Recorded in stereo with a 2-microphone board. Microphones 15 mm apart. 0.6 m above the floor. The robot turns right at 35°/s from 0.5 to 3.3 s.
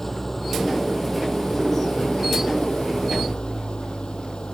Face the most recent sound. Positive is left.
turn(degrees=115)